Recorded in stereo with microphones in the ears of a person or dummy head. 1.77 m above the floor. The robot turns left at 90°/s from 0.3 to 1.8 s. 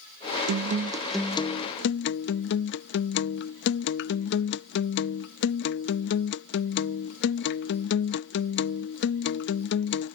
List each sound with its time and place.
0.5 s a guitar: 120° right; by 10.2 s 120° left